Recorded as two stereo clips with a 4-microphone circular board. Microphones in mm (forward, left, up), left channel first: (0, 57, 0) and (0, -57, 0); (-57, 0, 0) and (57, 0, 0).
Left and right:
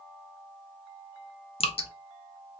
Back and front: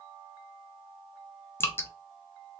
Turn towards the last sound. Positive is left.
turn(degrees=110)